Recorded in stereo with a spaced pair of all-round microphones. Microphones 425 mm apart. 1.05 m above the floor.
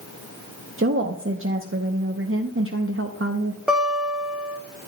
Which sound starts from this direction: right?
A woman speaking, at 0.8 s.